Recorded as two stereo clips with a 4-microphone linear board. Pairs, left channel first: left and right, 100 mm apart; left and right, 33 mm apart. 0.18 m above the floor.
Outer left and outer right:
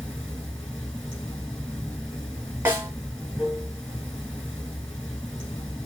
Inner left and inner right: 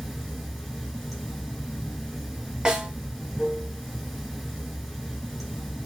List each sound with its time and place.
0.0 s running water: 5° left (ahead or behind), 1.3 m
2.6 s a snare drum: 25° right (ahead or behind), 0.8 m